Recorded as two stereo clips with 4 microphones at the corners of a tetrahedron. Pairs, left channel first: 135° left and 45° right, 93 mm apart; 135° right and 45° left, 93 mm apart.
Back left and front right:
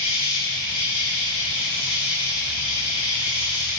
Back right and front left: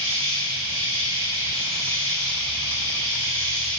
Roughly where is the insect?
Ahead left.